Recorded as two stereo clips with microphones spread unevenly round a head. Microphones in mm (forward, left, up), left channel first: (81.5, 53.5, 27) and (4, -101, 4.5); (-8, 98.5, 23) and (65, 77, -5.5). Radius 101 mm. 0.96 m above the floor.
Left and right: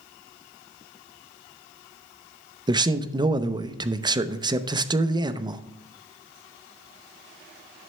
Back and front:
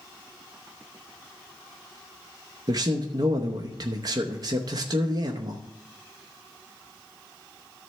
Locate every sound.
2.7 s a man speaking: 55° right, 0.7 m